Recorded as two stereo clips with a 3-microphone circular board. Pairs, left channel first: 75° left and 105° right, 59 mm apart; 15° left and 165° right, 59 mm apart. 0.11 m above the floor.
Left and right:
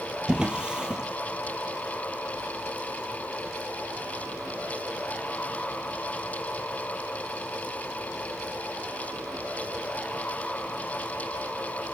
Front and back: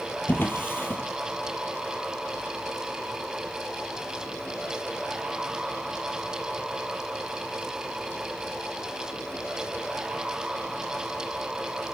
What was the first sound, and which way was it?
A drawer, 30° right.